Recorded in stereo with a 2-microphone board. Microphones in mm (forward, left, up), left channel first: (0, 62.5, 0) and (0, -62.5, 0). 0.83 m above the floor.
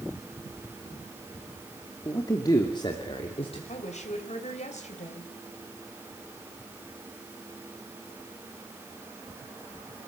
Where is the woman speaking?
70° left (ahead or behind), 3.5 m.